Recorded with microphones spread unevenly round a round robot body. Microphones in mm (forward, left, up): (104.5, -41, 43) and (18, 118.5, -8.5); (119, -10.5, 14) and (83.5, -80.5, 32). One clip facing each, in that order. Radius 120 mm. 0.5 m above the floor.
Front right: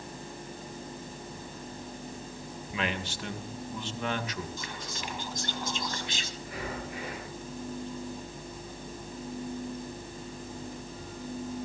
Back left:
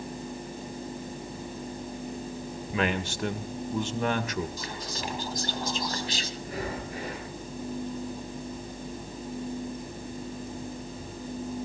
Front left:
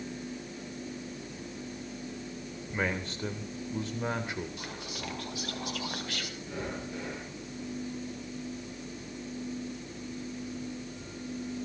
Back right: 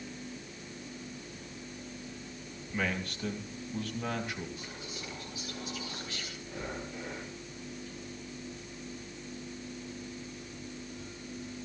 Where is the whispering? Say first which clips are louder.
Back left 4 dB, front left 3 dB; 75° left, 4 m.